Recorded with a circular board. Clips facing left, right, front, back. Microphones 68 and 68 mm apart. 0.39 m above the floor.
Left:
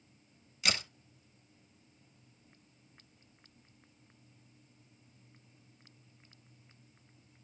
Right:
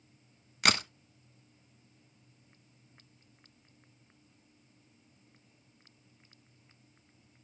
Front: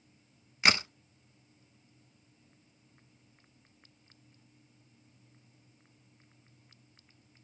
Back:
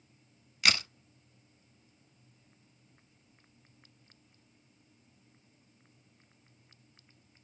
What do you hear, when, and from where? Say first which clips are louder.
0.6 s a crack: right 7 dB, front 3 dB; 65° right, 0.6 m